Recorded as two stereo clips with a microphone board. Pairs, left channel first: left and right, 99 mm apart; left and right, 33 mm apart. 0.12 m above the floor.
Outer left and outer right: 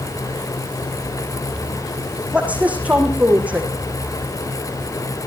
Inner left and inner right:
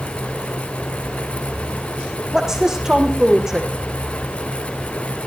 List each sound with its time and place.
2.3 s a woman speaking: 15° right (ahead or behind), 5.5 m